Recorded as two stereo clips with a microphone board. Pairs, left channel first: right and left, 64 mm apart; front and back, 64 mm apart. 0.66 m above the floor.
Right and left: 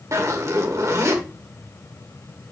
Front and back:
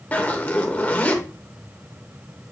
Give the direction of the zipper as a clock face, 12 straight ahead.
10 o'clock.